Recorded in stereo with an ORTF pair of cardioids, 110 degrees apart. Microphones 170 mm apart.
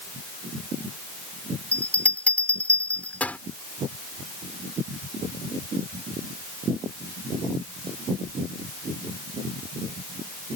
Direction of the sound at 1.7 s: 10° left.